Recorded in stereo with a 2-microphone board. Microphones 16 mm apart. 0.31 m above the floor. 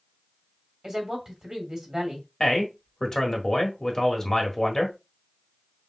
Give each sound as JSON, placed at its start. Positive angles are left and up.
{"t": 0.8, "sound": "a woman speaking", "side_deg": -40, "distance_m": 2.0}
{"t": 2.4, "sound": "a man speaking", "side_deg": 30, "distance_m": 1.2}